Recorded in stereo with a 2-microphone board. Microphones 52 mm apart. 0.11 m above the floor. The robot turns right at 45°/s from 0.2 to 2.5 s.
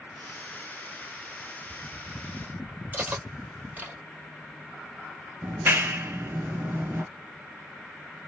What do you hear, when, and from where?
2.9 s cutlery clinking: 30° right (ahead or behind), 1.8 m
5.4 s a clap: 35° right (ahead or behind), 1.2 m